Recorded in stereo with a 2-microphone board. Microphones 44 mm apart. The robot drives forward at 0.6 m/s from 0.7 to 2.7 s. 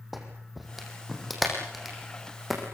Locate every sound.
0.1 s a clap: 5° right (ahead or behind), 5 m